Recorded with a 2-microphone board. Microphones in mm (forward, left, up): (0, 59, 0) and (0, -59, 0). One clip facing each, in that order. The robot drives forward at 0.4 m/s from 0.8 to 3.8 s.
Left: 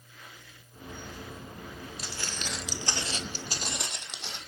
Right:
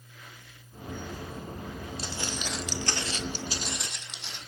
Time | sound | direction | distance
2.0 | footsteps | 30° right (ahead or behind) | 1.7 m